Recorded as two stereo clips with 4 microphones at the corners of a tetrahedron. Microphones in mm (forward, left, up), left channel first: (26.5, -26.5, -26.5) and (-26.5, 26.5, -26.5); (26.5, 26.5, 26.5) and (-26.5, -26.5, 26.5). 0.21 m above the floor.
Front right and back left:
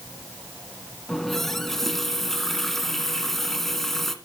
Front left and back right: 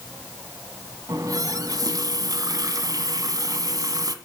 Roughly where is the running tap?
Behind right.